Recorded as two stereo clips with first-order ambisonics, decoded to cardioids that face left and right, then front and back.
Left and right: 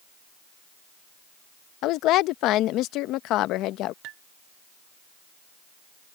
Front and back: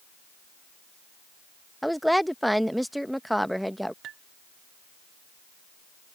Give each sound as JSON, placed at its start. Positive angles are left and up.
{"t": 1.8, "sound": "a woman speaking", "azimuth_deg": 90}
{"t": 4.0, "sound": "dishes clattering", "azimuth_deg": -130}